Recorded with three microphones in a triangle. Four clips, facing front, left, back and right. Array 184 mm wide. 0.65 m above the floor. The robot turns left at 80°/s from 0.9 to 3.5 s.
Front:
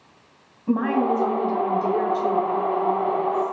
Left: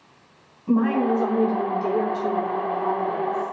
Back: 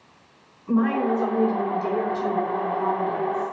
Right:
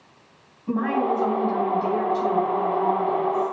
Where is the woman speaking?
5° left, 4 m; by 3.5 s 160° left, 4 m.